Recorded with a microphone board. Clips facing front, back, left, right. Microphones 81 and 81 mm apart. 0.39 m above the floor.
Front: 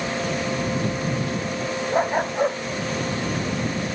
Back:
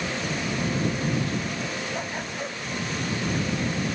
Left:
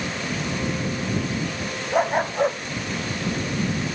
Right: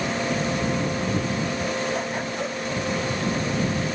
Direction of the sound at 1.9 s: 45° left.